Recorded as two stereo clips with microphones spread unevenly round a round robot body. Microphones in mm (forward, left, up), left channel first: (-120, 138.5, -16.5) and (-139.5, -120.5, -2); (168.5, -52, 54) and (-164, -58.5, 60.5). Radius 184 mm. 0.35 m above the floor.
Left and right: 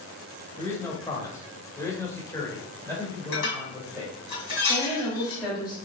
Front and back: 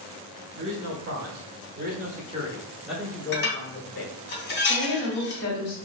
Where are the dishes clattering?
60° left, 2 m.